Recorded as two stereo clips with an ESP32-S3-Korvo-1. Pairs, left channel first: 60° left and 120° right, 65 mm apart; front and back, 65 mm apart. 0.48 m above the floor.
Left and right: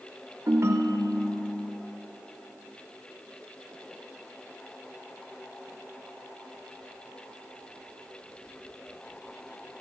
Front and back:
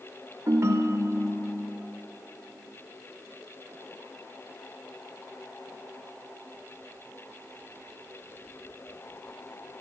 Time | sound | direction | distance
0.5 | a ringtone | 150° right | 0.7 m